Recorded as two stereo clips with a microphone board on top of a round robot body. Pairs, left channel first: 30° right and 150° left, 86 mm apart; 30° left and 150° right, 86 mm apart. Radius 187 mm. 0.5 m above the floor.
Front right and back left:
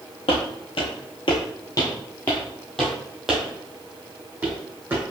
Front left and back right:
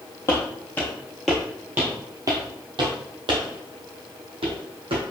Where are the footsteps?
30° right, 1.1 m; by 5.0 s 140° right, 1.9 m.